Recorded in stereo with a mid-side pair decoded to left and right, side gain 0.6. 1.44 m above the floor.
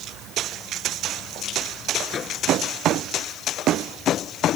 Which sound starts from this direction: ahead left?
A microwave, at 2.1 s.